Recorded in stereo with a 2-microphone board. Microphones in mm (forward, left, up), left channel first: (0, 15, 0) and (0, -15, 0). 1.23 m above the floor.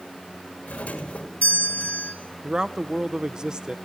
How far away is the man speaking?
About 0.7 m.